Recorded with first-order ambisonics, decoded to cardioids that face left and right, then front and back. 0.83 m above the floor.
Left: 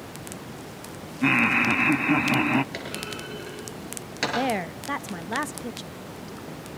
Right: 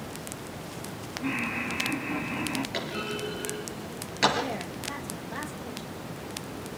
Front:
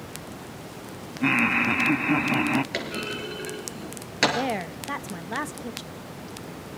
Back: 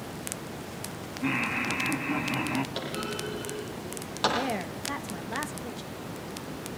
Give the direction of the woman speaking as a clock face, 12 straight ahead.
10 o'clock.